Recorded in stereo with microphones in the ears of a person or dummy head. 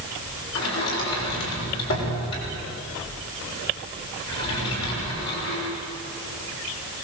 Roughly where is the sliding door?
Left.